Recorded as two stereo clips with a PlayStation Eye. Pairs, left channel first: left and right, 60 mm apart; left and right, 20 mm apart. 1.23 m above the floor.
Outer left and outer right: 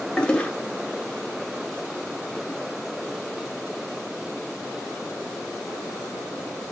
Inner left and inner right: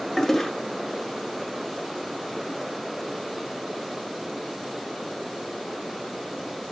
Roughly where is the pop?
No pop in this recording.